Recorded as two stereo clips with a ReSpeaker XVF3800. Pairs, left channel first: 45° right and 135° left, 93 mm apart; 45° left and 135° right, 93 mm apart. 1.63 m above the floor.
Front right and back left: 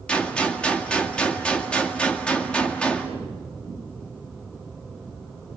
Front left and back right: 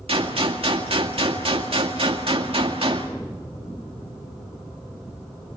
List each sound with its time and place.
0.1 s a gunshot: 125° right, 2 m